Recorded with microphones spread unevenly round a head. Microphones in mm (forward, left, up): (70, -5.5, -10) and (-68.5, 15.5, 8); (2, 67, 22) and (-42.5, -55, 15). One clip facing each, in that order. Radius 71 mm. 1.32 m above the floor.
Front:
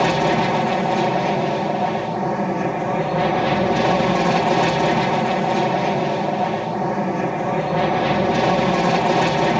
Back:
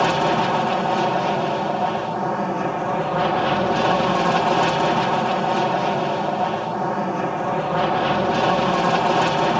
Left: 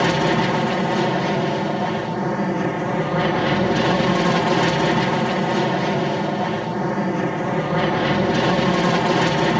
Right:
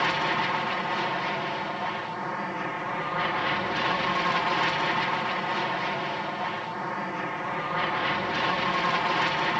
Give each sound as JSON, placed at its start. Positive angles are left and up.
{"t": 0.0, "sound": "an aircraft", "azimuth_deg": 65}